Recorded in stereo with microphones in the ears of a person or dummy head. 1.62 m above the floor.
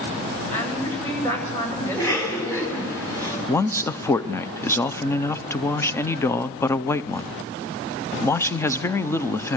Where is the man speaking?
10° left (ahead or behind), 0.6 m.